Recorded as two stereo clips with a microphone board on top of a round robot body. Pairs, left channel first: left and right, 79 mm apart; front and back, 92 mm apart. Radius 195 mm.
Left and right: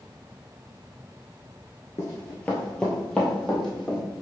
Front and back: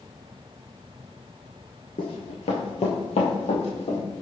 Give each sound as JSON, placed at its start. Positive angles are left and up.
{"t": 2.0, "sound": "running footsteps", "azimuth_deg": 35, "distance_m": 0.5}